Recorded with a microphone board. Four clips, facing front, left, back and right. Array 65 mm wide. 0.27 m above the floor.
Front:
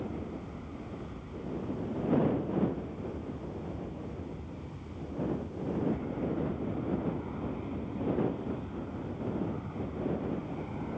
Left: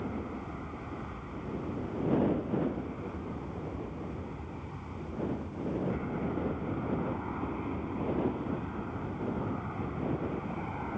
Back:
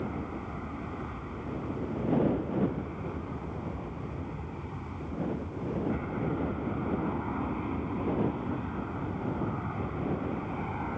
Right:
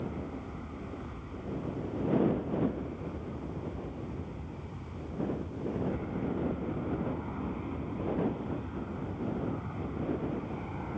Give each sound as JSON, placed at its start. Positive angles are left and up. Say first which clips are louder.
{"t": 0.0, "sound": "an aircraft", "louder": "left 1 dB, back 3 dB", "azimuth_deg": 155}